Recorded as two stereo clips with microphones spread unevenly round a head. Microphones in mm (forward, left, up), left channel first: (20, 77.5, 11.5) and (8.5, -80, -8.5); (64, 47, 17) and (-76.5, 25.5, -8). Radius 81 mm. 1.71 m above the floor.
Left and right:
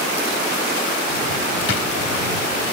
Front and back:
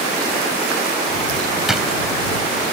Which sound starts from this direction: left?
A drawer, at 1.7 s.